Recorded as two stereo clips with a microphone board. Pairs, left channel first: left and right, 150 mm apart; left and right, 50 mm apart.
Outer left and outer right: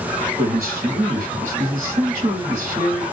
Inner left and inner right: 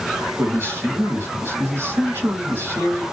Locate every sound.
0.4 s a man speaking: 60° right (ahead or behind), 2 m